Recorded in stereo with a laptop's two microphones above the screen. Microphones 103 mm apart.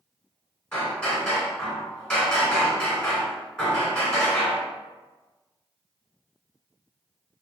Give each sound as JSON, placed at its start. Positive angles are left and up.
{"t": 0.7, "sound": "hammering", "side_deg": 5, "distance_m": 1.6}